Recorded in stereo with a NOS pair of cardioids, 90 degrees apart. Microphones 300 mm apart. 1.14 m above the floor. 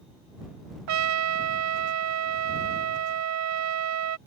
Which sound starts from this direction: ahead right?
A trumpet, at 0.9 s.